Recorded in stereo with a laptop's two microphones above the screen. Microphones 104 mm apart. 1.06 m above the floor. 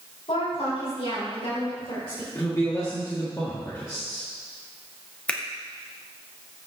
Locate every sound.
0.3 s a woman speaking: 70° left (ahead or behind), 4.5 m; by 2.2 s 75° left (ahead or behind), 3.5 m
2.4 s a man speaking: 35° left (ahead or behind), 1.6 m
5.3 s a finger snap: 10° left (ahead or behind), 1.3 m